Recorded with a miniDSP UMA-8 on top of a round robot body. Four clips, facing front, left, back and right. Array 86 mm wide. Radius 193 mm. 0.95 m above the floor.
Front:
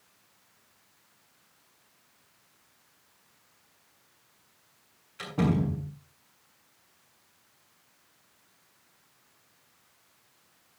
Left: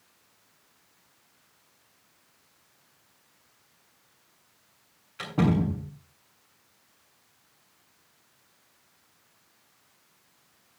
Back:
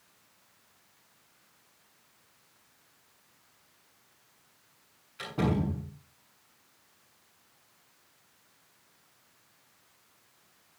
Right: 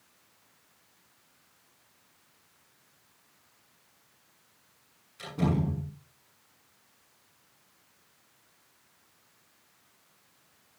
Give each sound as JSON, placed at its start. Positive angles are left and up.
{"t": 5.2, "sound": "a door slam", "azimuth_deg": 85, "distance_m": 7.5}